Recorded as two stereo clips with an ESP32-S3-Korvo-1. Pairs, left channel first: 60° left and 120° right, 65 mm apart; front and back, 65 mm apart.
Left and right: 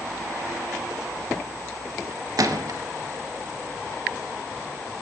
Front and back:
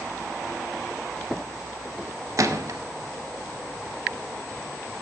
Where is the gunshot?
145° right, 0.6 m.